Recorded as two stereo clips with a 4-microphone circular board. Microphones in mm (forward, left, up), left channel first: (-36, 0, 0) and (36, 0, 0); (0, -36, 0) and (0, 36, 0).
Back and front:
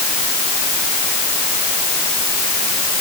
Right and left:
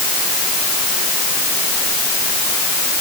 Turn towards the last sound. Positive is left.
No sound to turn to.